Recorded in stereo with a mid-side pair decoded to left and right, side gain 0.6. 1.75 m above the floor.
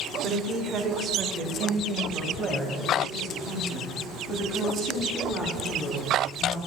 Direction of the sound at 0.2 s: 50° right.